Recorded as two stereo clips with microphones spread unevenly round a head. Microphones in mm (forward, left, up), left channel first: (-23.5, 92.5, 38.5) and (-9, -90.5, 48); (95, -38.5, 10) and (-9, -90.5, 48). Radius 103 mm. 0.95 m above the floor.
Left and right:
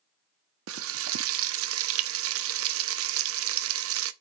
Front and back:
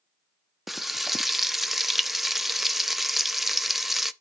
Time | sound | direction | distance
0.7 | frying | 70° right | 0.7 m